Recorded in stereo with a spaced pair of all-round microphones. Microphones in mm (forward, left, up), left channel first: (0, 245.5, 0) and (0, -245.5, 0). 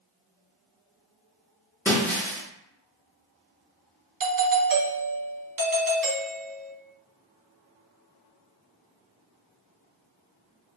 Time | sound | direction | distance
1.9 | breaking glass | 5° left (ahead or behind) | 0.8 m
4.2 | a doorbell | 45° right (ahead or behind) | 0.5 m